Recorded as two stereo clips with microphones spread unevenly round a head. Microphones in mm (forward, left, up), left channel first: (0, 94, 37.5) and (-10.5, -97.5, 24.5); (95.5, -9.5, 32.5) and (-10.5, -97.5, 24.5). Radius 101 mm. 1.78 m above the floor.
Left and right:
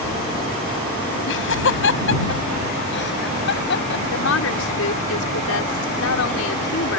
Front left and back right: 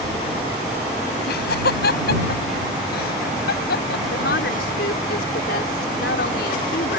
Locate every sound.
1.3 s laughter: 60° left; by 4.0 s 50° left
4.1 s a woman speaking: 70° left